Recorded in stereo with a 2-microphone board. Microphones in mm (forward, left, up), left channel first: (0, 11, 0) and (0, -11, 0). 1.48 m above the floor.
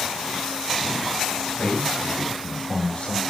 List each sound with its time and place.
1.6 s a man speaking: 70° left (ahead or behind), 7.5 m; by 3.2 s 55° left (ahead or behind), 6.5 m